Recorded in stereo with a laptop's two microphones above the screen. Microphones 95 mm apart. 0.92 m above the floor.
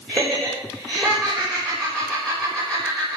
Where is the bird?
No bird in this recording.